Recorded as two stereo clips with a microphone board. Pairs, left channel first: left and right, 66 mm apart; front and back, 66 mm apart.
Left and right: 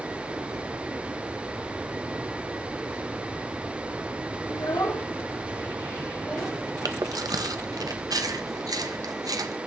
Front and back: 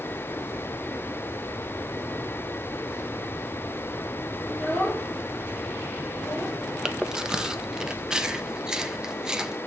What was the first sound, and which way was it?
A child speaking, 70° left.